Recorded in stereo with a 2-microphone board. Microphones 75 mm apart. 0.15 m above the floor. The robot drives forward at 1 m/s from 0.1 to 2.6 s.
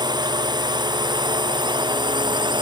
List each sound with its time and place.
0.0 s a drone: 65° right (ahead or behind); by 2.6 s 70° right (ahead or behind)